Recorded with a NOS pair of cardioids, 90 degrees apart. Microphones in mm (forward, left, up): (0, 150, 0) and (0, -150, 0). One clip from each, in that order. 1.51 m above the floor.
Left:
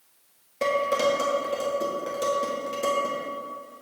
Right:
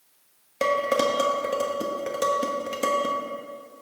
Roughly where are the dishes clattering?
Ahead right.